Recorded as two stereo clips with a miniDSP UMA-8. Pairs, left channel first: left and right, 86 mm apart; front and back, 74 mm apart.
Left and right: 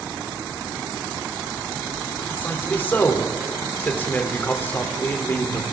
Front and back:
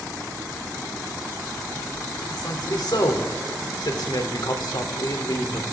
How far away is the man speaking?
About 3 m.